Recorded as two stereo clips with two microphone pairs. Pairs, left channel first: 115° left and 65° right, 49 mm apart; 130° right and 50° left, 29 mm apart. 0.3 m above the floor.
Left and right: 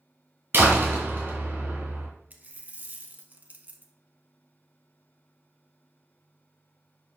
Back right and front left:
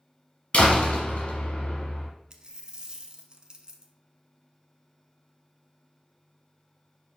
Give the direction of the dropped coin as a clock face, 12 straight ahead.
12 o'clock.